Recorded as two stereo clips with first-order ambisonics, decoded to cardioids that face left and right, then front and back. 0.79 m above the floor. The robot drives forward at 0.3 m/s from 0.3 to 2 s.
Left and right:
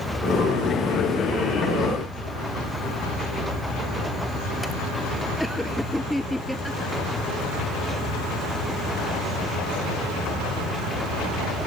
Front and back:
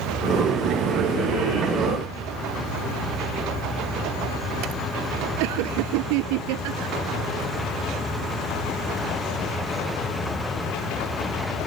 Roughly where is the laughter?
Behind.